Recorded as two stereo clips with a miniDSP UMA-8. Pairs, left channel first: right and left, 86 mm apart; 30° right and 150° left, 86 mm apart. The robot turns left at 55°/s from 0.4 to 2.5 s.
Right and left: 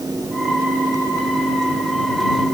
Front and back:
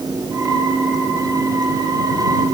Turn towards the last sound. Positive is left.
No sound to turn to.